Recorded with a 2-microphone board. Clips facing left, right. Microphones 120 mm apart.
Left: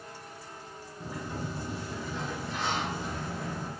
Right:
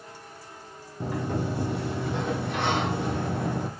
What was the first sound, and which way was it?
A sliding door, 65° right (ahead or behind).